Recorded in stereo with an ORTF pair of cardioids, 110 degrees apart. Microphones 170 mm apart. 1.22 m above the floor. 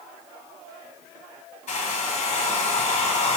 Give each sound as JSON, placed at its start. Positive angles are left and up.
{"t": 1.7, "sound": "a hair dryer", "azimuth_deg": 45, "distance_m": 0.8}